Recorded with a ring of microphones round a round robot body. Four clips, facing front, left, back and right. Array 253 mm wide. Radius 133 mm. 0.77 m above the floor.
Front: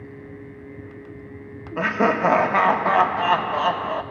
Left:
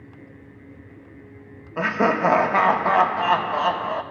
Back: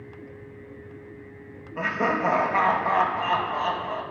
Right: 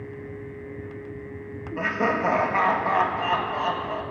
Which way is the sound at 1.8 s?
40° left.